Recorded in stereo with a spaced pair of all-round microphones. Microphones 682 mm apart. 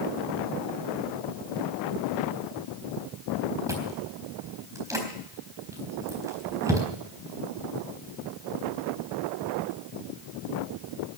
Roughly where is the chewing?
Centre.